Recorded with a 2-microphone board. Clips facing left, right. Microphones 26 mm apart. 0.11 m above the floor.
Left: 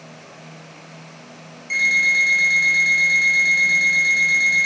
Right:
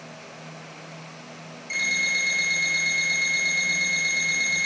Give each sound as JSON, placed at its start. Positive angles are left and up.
{"t": 1.7, "sound": "an alarm clock", "side_deg": 15, "distance_m": 1.4}